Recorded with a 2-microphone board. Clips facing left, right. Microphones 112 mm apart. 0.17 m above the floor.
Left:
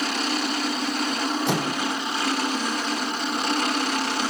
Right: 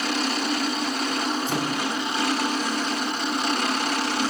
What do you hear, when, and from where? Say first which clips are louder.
1.5 s a microwave: left 1 dB; 80° left, 8.5 m